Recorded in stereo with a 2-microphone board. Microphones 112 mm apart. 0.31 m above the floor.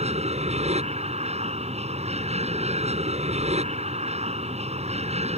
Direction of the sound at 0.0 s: 65° right (ahead or behind).